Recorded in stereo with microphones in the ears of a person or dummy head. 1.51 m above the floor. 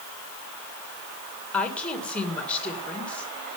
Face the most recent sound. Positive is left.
turn(degrees=5)  # may be behind; listen again after turning